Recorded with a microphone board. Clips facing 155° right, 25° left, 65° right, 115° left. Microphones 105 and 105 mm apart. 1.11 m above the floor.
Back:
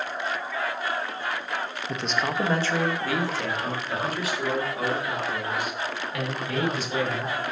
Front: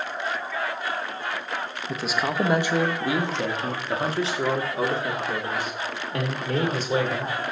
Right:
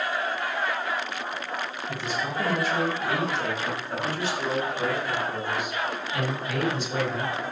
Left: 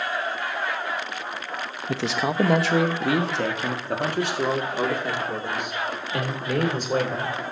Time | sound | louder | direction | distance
1.9 | a man speaking | front 1 dB, left 7 dB | 110° left | 0.9 m